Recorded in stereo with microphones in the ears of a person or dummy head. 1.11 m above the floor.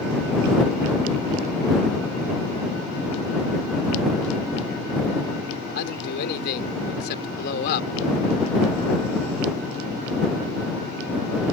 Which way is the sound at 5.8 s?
55° left (ahead or behind).